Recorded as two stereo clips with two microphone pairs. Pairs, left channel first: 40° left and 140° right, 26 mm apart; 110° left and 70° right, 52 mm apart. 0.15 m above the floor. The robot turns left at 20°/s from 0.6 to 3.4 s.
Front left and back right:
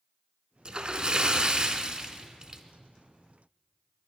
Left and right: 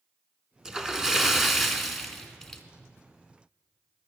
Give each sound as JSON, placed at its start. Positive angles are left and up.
{"t": 0.7, "sound": "a splash", "azimuth_deg": -130, "distance_m": 0.8}